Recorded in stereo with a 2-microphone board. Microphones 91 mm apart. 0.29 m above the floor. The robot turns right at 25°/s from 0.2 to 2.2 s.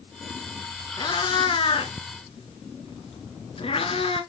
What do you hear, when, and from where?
1.0 s a cat meowing: 50° left (ahead or behind), 1.5 m; by 4.2 s 75° left (ahead or behind), 1.5 m